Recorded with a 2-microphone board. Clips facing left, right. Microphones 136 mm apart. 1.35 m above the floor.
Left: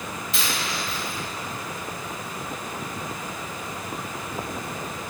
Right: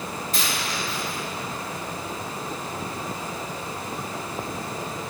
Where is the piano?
No piano in this recording.